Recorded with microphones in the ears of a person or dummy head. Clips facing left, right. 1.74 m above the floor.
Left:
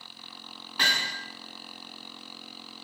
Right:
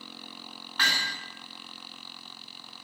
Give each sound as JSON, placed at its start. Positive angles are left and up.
{"t": 0.8, "sound": "hammering", "side_deg": 30, "distance_m": 2.5}